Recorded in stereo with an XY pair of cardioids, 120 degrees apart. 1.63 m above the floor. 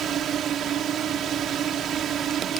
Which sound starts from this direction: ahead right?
A drone, at 0.0 s.